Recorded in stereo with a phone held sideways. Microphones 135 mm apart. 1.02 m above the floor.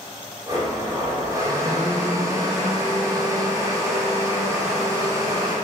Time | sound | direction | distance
0.5 | a blender | 25° right (ahead or behind) | 3 m